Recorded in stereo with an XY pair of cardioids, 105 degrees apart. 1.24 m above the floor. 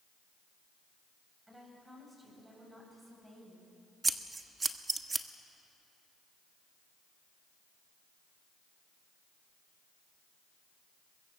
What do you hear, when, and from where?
1.5 s a woman speaking: 10° right, 8 m; by 3.7 s straight ahead, 9 m
4.0 s scissors: 25° right, 1.2 m